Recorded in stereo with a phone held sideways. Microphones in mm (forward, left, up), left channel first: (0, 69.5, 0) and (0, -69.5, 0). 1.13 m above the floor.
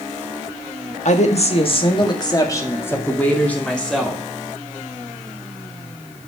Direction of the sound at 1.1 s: 60° left (ahead or behind).